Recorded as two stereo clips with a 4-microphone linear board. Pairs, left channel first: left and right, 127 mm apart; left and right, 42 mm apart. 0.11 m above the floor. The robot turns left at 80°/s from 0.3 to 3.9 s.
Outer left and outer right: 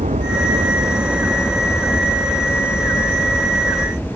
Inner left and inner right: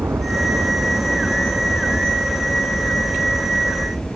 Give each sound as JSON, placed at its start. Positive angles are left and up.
{"t": 0.0, "sound": "a helicopter", "azimuth_deg": -80}